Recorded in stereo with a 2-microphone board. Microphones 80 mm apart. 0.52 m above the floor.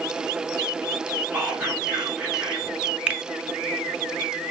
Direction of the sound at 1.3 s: 15° right (ahead or behind).